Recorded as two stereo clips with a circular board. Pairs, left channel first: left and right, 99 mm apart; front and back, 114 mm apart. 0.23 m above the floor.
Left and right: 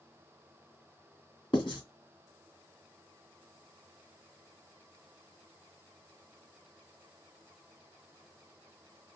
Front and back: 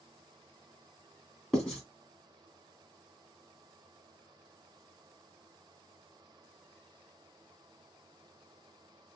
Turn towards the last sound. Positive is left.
turn(degrees=85)